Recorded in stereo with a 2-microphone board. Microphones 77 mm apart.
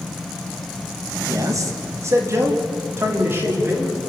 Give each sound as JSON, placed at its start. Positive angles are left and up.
{"t": 1.3, "sound": "a man speaking", "side_deg": -45, "distance_m": 2.5}